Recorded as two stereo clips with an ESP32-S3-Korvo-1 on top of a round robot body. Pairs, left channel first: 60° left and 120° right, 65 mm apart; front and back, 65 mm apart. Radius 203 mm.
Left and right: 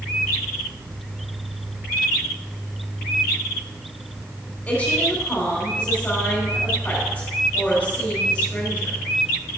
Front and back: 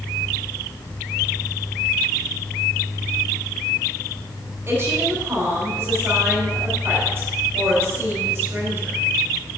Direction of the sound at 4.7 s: 125° left.